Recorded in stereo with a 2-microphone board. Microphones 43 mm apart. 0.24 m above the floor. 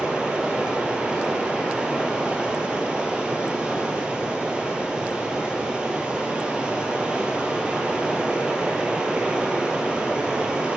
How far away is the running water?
About 1.3 m.